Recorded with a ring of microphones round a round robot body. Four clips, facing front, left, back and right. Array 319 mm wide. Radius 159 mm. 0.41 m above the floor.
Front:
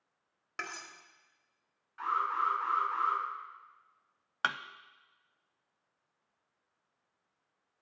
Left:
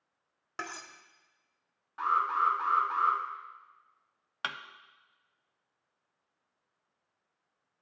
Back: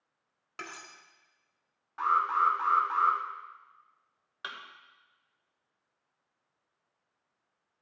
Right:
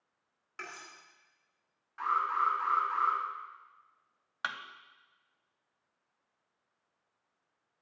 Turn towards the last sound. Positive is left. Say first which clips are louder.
# even, front 10 dB
turn(degrees=15)